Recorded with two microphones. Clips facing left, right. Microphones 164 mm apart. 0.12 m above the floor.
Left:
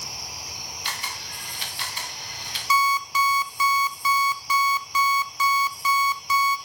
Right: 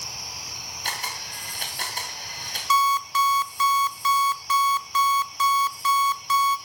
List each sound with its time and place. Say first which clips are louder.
0.8 s a camera shutter: right 3 dB; 50° right (ahead or behind), 4.5 m
2.7 s an alarm clock: right 1 dB; 10° left (ahead or behind), 1.3 m